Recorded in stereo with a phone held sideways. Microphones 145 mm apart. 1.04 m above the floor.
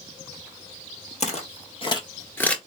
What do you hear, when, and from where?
1.2 s footsteps: 55° left (ahead or behind), 1.7 m; by 2.6 s 5° left (ahead or behind), 1.0 m